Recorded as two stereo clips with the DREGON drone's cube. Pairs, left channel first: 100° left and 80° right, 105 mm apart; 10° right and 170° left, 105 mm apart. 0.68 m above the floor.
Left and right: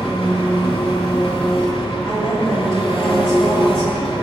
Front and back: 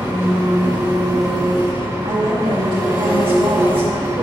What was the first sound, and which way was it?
An engine running, 105° left.